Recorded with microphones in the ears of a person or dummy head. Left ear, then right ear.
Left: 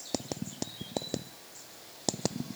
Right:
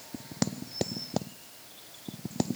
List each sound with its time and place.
Only background noise.